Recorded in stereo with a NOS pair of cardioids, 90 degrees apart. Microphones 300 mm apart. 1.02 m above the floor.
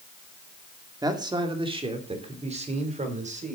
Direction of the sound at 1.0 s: 10° right.